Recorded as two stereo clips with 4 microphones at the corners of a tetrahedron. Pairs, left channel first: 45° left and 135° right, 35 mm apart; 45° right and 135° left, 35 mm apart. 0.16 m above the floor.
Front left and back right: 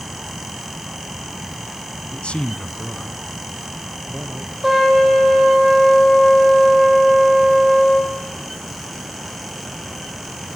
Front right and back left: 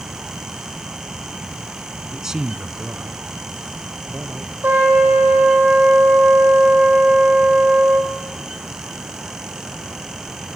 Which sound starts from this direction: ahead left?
A man speaking, at 2.1 s.